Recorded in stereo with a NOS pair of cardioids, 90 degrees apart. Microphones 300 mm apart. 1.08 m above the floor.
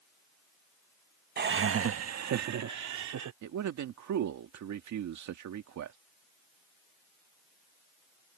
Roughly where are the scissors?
I don't hear scissors.